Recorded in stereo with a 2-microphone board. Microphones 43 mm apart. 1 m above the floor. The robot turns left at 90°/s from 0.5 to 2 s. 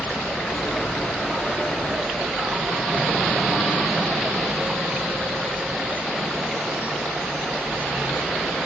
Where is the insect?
90° left, 1.2 m; by 8.7 s 45° right, 1.2 m.